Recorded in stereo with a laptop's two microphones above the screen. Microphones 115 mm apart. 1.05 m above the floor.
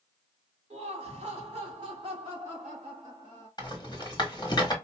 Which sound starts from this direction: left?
A rattle, at 3.6 s.